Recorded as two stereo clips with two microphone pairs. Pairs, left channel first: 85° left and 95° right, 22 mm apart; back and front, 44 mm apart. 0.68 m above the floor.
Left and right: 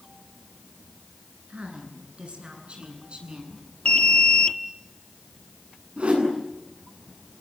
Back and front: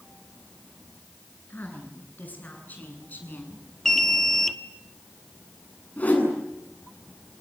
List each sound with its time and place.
1.5 s a woman speaking: 130° right, 9.5 m
3.9 s an alarm: 100° left, 1.6 m
6.0 s a whoosh: 125° right, 9 m